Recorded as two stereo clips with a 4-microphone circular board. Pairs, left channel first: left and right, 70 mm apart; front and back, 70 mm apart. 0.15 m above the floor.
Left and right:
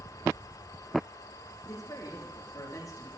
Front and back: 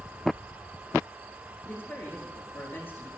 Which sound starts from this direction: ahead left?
A man speaking, at 1.6 s.